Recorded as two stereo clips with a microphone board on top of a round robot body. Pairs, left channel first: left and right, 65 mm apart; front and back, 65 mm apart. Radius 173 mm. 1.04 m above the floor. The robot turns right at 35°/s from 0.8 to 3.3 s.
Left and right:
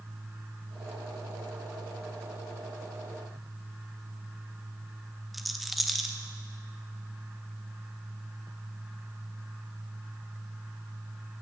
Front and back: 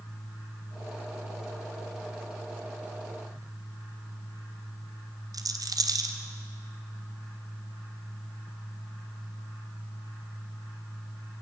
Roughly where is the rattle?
Behind.